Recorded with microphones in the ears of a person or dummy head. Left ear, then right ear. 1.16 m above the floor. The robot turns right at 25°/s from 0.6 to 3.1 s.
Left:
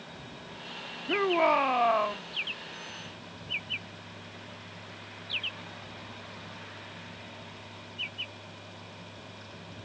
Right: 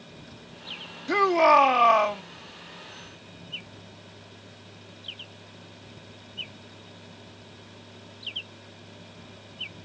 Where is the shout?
70° right (ahead or behind); by 2.2 s 80° right.